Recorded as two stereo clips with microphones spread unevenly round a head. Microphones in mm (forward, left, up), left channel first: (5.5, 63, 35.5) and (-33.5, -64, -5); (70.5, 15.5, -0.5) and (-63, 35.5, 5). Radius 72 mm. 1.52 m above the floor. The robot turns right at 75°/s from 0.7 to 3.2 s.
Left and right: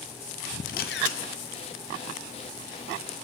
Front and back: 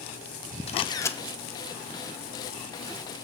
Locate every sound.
0.7 s a camera shutter: 35° left, 0.7 m; by 1.2 s 70° left, 0.7 m